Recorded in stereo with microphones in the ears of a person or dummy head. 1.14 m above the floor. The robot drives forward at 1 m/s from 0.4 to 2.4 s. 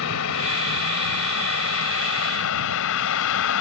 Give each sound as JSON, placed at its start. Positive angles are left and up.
{"t": 0.0, "sound": "a vehicle", "side_deg": 85}